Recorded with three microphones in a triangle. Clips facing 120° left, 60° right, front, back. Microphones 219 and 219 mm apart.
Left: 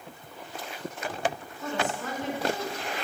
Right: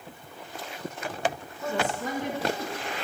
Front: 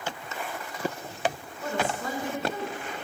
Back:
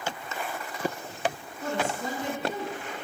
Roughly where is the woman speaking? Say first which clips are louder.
Right 2 dB, even; behind right.